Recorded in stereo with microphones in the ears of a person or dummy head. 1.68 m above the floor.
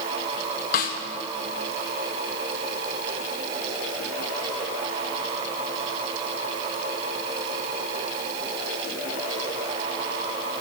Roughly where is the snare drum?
Left.